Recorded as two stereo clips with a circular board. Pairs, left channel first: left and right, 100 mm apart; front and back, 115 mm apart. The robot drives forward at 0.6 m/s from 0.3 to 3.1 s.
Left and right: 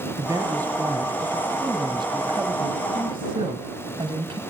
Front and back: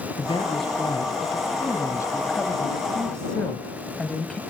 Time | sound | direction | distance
0.2 | a woman speaking | 35° right | 2.5 m